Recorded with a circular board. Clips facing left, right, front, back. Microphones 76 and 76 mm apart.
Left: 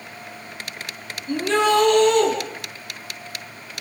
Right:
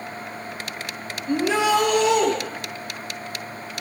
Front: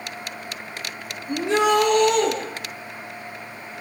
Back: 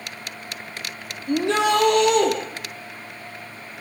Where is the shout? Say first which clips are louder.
Left 1 dB, even; 170° right, 6 m; by 2.3 s 175° right, 6.5 m.